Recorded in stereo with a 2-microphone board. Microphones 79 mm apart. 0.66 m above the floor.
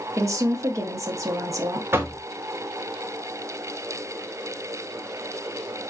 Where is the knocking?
30° right (ahead or behind), 0.6 m.